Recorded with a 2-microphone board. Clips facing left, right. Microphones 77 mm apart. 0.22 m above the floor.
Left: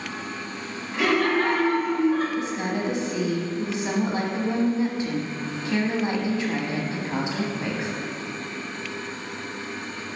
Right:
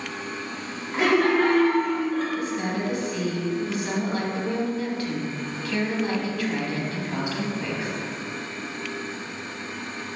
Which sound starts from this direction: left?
A woman speaking, at 2.4 s.